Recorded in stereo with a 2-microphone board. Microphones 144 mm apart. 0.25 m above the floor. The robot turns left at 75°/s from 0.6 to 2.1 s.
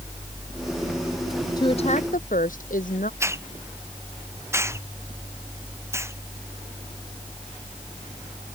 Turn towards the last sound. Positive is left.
turn(degrees=-20)  # may be behind; listen again after turning